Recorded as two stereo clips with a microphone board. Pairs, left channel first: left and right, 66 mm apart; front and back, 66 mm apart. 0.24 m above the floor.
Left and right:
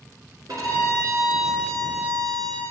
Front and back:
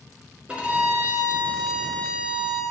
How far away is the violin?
About 1.9 m.